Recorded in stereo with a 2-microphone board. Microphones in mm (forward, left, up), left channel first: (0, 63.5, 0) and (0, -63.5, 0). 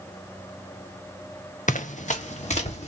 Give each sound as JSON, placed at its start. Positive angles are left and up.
{"t": 1.7, "sound": "running footsteps", "side_deg": 85, "distance_m": 0.6}